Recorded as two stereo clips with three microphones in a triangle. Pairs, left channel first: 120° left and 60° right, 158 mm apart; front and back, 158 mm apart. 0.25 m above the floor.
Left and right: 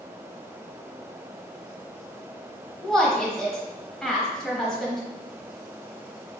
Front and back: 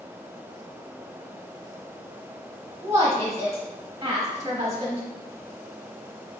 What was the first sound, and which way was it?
A woman speaking, 160° right.